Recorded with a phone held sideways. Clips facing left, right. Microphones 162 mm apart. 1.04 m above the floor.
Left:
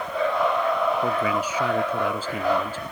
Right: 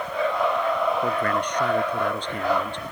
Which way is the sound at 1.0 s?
5° left (ahead or behind).